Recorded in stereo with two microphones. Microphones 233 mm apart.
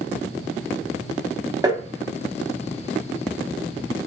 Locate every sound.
1.6 s tapping: 15° right (ahead or behind), 0.6 m